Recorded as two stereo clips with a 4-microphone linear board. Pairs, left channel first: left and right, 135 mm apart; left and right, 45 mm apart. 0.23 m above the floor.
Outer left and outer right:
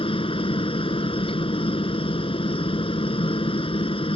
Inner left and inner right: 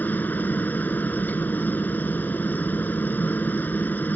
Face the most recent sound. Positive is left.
turn(degrees=40)  # may be behind; listen again after turning